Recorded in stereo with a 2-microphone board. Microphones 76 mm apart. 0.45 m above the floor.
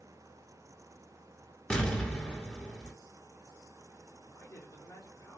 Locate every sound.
1.7 s an explosion: 15° left (ahead or behind), 1.1 m
4.3 s a man speaking: 35° left (ahead or behind), 1.7 m